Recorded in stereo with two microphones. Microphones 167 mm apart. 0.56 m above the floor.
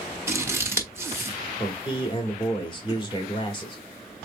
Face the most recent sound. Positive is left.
turn(degrees=30)  # may be behind; listen again after turning